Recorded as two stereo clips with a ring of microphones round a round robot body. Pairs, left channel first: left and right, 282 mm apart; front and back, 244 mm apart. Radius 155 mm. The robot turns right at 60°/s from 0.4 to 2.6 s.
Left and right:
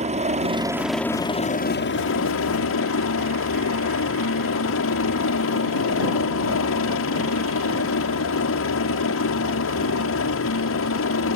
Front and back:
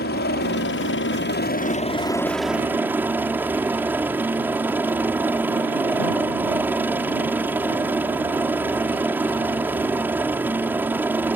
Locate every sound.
0.0 s a helicopter: 30° right; by 11.4 s 100° left